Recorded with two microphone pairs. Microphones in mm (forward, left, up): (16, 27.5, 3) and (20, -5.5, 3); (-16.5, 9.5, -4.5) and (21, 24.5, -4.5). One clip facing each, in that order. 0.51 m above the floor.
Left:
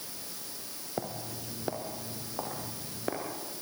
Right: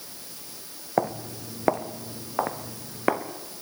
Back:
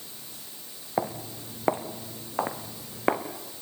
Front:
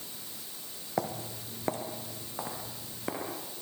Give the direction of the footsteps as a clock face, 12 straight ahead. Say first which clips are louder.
Right 11 dB, back 4 dB; 3 o'clock.